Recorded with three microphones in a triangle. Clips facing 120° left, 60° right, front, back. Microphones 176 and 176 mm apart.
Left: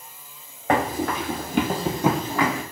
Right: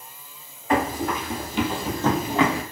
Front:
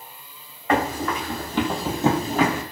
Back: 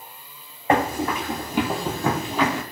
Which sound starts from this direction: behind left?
Running footsteps, at 0.7 s.